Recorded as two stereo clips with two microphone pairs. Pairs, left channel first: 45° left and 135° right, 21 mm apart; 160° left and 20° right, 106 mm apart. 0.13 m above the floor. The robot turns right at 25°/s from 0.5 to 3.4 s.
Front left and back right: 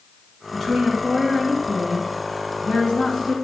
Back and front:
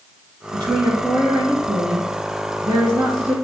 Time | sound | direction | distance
0.5 | a woman speaking | 35° right | 2 m